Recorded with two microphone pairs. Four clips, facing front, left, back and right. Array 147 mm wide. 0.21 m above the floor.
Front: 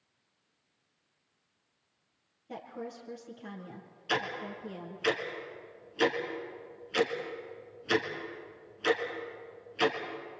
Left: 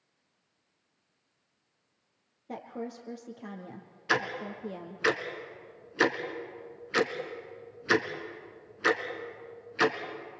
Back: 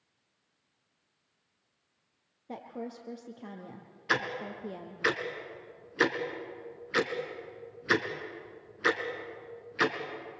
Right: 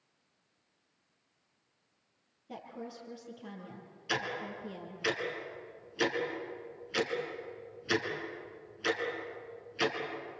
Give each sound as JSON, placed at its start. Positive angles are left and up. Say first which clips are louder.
{"t": 2.5, "sound": "a woman speaking", "louder": "left 5 dB, back 1 dB", "azimuth_deg": 125, "distance_m": 4.5}
{"t": 4.1, "sound": "ticking", "louder": "left 5 dB, back 1 dB", "azimuth_deg": 125, "distance_m": 2.0}